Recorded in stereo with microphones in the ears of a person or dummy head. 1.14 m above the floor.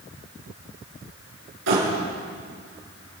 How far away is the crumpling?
About 7.5 m.